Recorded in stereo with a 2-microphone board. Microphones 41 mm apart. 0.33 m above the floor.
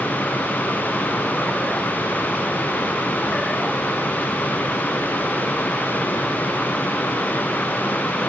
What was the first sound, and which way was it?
Only background noise.